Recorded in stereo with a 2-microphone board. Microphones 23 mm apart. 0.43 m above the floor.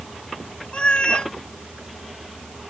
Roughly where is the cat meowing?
Left.